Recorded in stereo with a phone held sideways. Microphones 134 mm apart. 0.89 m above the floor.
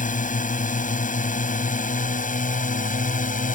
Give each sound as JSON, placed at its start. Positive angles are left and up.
{"t": 0.0, "sound": "a drone", "side_deg": 75}